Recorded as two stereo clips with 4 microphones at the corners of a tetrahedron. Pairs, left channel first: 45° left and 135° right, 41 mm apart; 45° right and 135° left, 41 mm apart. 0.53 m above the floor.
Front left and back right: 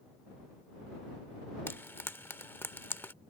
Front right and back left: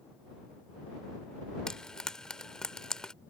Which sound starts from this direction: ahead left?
Frying, at 1.7 s.